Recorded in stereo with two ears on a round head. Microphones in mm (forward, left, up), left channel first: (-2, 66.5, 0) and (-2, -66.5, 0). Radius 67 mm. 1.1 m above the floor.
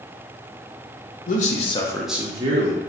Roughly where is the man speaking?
Left.